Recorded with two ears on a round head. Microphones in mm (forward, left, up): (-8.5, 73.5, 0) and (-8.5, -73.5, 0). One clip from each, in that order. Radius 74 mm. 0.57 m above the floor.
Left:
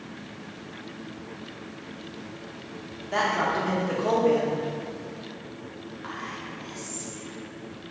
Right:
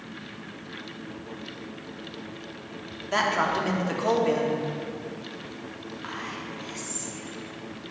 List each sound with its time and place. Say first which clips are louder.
3.1 s a man speaking: right 1 dB; 35° right (ahead or behind), 1.1 m
6.0 s whispering: even; 20° right (ahead or behind), 0.9 m